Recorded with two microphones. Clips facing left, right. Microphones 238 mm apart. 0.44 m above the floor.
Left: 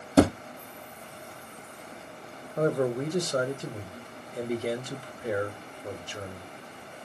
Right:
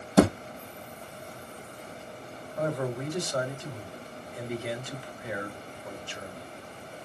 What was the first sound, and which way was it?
A thud, 30° left (ahead or behind).